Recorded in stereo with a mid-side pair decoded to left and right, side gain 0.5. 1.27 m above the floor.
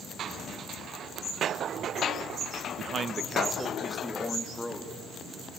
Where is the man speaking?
55° right, 0.8 m; by 4.9 s 10° left, 2 m.